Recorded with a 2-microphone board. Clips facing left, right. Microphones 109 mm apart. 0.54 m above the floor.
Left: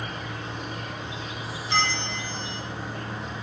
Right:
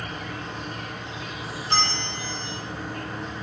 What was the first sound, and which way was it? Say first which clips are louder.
An insect: right 1 dB; 5° left (ahead or behind).